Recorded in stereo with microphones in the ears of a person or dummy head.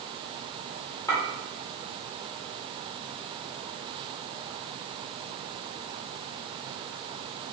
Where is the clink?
15° left (ahead or behind), 1.8 m.